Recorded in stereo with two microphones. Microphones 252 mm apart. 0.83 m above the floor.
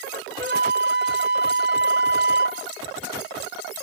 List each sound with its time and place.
0.4 s a flute: 45° right (ahead or behind), 1.2 m